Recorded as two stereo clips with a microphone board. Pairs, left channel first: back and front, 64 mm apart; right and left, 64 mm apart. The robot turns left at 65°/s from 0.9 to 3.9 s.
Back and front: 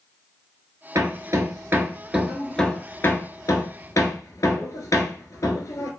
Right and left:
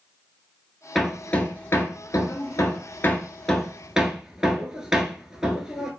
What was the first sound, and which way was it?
Hammering, straight ahead.